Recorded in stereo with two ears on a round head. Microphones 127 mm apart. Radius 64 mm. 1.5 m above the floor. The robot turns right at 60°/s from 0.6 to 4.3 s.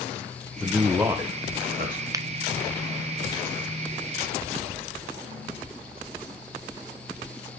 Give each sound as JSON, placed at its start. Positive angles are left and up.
{"t": 0.6, "sound": "a man speaking", "azimuth_deg": 170, "distance_m": 1.3}
{"t": 2.1, "sound": "a finger snap", "side_deg": -25, "distance_m": 0.5}